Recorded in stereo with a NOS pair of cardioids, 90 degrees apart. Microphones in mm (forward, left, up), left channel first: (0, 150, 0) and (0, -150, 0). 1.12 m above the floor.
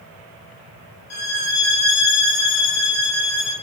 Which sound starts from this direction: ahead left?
A violin, at 1.1 s.